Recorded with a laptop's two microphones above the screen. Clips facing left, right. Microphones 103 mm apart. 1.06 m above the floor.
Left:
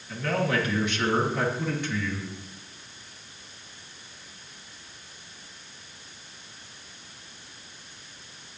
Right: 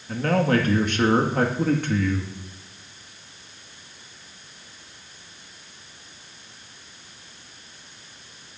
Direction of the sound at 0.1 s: 50° right (ahead or behind).